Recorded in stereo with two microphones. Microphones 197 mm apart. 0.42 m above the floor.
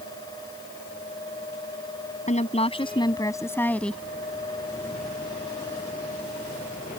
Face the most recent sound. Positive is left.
turn(degrees=5)  # may be behind; listen again after turning